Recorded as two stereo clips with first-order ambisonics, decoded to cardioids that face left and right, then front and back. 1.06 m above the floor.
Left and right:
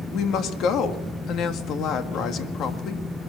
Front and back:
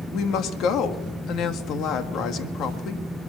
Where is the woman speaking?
45° left, 1.8 m.